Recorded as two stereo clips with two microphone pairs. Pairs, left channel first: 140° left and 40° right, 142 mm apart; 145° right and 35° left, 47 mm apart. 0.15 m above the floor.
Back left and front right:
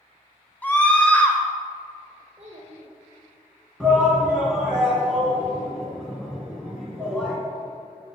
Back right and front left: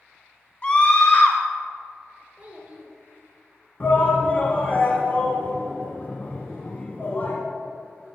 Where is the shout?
140° right, 1.2 m.